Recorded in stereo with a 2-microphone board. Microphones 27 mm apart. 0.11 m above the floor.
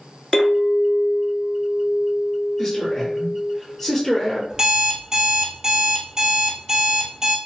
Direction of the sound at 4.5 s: 30° right (ahead or behind).